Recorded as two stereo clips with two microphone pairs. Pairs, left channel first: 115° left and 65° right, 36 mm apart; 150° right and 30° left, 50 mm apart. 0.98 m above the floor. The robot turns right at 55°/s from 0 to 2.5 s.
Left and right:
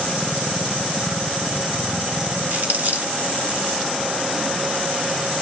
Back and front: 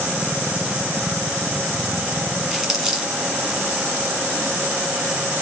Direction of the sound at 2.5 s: 50° right.